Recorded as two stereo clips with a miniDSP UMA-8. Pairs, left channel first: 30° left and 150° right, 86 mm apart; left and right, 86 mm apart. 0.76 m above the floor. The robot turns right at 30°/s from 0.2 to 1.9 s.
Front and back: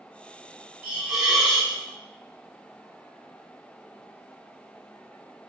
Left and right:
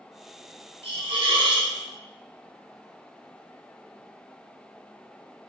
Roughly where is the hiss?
Right.